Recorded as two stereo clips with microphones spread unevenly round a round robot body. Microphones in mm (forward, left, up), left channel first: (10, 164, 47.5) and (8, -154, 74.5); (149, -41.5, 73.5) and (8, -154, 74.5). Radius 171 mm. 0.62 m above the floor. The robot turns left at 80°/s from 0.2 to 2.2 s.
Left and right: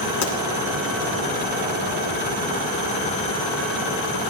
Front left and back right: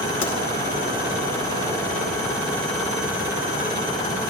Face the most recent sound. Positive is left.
turn(degrees=-110)